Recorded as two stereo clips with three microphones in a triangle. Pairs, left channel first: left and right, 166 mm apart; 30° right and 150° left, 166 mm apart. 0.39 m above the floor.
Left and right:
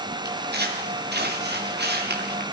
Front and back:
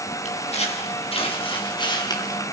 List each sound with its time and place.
0.2 s footsteps: 80° right, 7.5 m; by 2.4 s 100° right, 5.5 m